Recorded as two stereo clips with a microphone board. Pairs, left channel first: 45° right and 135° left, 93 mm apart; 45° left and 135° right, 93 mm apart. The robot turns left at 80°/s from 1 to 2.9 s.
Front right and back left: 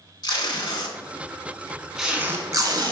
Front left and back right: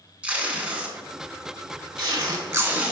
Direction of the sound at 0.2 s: 65° right.